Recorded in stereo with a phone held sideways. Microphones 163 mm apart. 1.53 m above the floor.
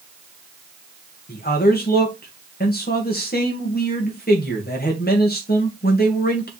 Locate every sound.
1.3 s a man speaking: 70° left (ahead or behind), 2 m